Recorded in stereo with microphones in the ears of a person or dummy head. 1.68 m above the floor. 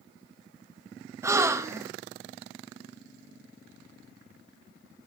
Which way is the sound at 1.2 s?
20° right (ahead or behind).